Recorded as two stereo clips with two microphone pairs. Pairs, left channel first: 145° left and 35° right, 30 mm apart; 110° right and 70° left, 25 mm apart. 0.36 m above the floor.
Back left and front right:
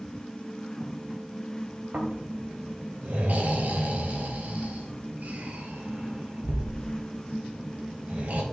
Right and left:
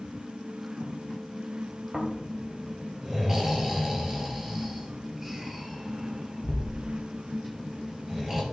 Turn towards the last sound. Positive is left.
turn(degrees=0)